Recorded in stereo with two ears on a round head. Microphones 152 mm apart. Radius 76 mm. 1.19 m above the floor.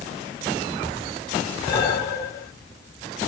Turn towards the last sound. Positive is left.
turn(degrees=20)  # may be behind; listen again after turning